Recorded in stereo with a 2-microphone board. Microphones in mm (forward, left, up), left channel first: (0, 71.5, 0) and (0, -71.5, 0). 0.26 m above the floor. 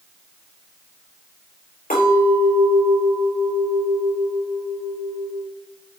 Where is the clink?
70° left (ahead or behind), 4 m.